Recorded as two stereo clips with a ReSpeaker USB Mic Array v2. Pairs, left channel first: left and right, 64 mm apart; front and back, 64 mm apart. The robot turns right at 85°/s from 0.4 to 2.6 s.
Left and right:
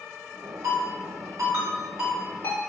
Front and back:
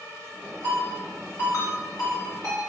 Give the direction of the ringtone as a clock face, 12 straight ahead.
4 o'clock.